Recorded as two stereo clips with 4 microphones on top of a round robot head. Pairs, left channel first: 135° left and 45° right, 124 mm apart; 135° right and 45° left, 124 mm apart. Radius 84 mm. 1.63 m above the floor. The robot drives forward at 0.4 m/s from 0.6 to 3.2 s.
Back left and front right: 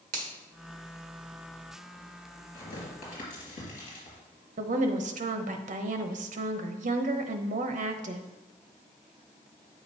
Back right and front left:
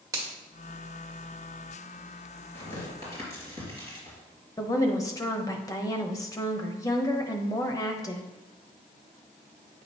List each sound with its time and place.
0.1 s a finger snap: 25° right, 1.5 m
2.5 s tearing paper: 160° left, 3.5 m
4.6 s a woman speaking: 70° right, 0.8 m